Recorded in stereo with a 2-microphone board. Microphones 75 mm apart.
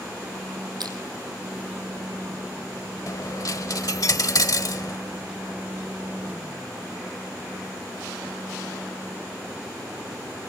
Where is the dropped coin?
55° left (ahead or behind), 0.8 m.